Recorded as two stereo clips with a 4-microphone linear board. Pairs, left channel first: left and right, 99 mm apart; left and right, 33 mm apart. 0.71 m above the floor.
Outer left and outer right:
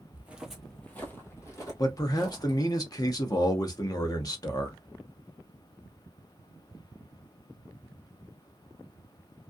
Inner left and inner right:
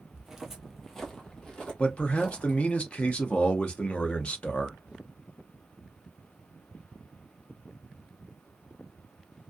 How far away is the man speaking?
About 0.7 m.